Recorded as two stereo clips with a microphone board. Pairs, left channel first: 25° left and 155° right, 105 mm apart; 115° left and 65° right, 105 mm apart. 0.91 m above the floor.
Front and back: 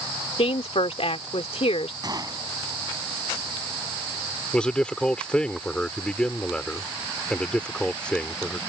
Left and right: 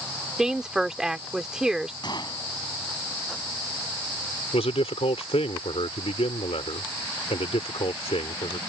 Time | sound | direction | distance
0.4 | a woman speaking | 15° left | ?
2.0 | a gunshot | 155° left | ?
4.5 | a man speaking | 100° left | ?